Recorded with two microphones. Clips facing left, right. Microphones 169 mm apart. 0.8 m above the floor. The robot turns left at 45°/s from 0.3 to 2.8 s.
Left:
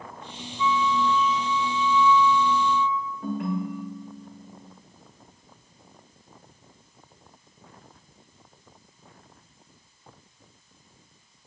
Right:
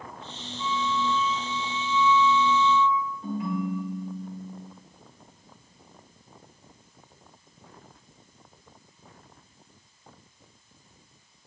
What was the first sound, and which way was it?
A flute, 75° right.